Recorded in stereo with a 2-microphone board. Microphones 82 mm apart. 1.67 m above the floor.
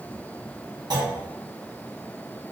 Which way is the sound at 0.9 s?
60° right (ahead or behind).